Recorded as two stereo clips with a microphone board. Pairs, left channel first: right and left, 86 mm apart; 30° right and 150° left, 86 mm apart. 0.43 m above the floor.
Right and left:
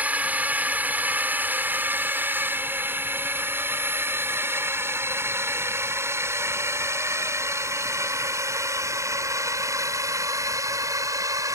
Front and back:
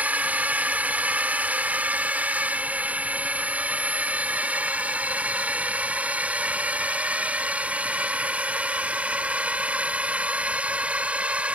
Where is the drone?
120° left; by 11.5 s 80° left.